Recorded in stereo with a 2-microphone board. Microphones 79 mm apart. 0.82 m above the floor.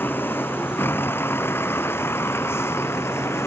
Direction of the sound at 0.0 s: 25° left (ahead or behind).